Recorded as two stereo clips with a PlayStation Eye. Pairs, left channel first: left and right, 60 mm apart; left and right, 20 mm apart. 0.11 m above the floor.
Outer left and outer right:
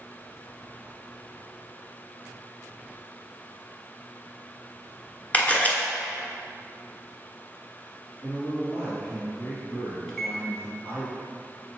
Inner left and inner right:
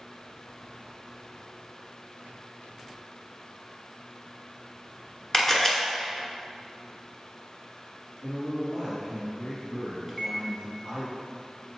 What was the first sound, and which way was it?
A camera shutter, 25° left (ahead or behind).